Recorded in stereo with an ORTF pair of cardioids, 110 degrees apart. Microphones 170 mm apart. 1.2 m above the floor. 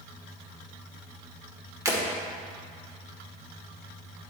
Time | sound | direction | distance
1.9 | breaking glass | 20° right | 2.0 m